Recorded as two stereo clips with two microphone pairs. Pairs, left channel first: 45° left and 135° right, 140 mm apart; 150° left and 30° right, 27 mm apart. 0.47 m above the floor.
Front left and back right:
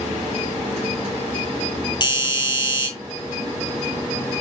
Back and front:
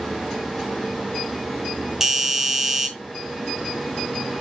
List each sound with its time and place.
2.0 s a doorbell: 35° left, 2 m